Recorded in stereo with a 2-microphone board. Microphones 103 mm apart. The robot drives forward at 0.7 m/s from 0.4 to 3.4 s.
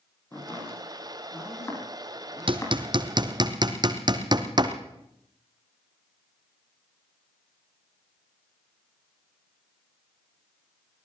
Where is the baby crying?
I don't hear a baby crying.